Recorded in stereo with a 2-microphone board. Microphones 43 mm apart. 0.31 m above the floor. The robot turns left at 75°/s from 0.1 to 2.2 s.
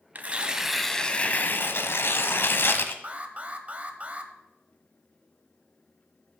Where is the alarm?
35° right (ahead or behind), 0.9 m.